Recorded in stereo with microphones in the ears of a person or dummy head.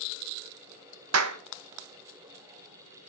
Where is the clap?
85° right, 1.0 m.